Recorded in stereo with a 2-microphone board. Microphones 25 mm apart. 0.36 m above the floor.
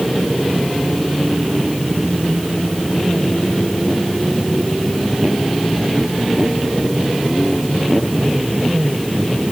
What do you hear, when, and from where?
Only background noise.